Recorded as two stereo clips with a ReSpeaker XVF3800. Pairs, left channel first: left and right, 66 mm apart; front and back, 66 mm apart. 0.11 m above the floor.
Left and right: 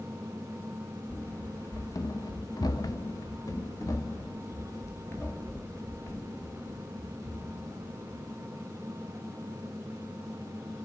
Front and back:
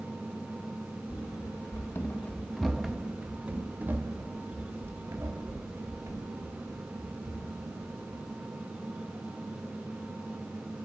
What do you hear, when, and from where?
1.1 s running footsteps: 25° left, 0.9 m; by 8.3 s 145° left, 3.5 m